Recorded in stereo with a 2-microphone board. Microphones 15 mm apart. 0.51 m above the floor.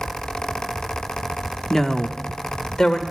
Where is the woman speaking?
10° left (ahead or behind), 0.7 m; by 3.0 s 60° left (ahead or behind), 1.4 m.